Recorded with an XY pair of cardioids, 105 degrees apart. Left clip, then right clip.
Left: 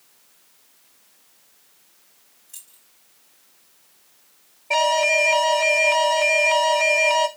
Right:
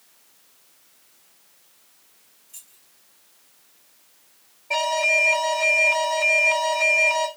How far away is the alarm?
About 1.7 m.